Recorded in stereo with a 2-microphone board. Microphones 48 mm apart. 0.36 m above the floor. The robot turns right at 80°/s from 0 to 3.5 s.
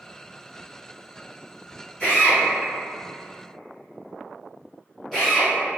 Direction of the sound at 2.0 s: 25° left (ahead or behind).